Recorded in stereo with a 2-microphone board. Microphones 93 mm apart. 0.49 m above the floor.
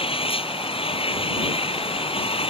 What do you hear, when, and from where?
0.0 s an engine running: 85° left